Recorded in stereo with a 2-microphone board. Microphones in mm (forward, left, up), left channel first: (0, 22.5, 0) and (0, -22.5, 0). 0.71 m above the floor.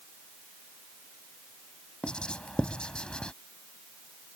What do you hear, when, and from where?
2.0 s writing: 25° left (ahead or behind)